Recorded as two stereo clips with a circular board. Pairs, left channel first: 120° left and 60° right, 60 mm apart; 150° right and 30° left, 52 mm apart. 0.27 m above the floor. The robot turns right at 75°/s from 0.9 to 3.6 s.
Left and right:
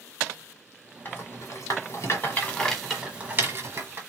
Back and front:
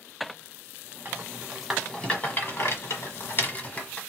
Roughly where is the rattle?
Left.